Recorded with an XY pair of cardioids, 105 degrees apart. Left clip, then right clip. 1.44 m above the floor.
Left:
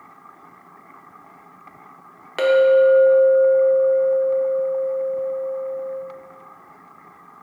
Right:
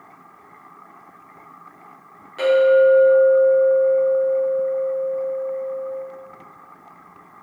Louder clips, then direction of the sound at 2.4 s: Even; 70° left.